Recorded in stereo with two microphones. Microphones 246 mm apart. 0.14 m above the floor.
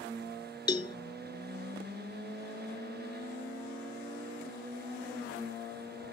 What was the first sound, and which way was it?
A cowbell, 20° left (ahead or behind).